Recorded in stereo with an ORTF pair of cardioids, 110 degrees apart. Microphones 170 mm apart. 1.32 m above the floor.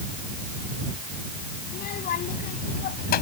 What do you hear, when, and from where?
1.7 s a child speaking: 60° left; by 3.2 s 65° left